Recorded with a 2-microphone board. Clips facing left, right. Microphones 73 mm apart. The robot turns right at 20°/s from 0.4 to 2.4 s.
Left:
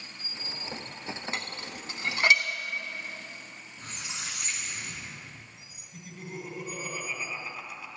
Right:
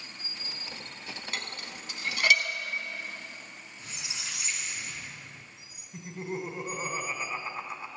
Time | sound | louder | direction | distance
1.3 | dishes clattering | left 2 dB | 25° left (ahead or behind) | 0.8 m
3.8 | a squeak | left 2 dB | 50° left (ahead or behind) | 1.5 m
5.9 | laughter | right 5 dB | 35° right (ahead or behind) | 1.2 m